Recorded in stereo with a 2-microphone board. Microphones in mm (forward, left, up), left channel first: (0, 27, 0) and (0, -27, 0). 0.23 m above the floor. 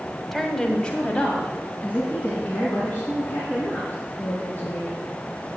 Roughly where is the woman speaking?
Centre.